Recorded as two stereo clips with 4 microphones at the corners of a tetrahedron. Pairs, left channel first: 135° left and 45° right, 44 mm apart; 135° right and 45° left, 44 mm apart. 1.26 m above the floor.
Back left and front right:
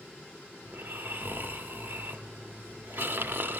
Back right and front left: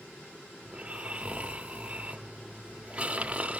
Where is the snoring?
15° right, 1.2 m.